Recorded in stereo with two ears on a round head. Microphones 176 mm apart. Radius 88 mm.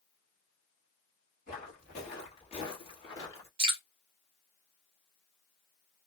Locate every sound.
1.5 s footsteps: 45° left (ahead or behind), 2 m; by 3.5 s 15° left (ahead or behind), 1.8 m
3.6 s dripping: 25° right (ahead or behind), 1.3 m